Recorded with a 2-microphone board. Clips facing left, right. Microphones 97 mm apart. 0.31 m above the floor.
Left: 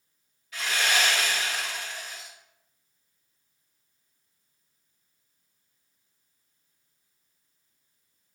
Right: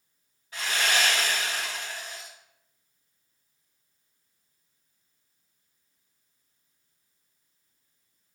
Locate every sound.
0.5 s sawing: 35° right (ahead or behind), 1.9 m